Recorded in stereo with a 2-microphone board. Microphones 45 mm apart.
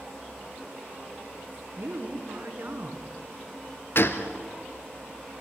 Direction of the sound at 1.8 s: 55° right (ahead or behind).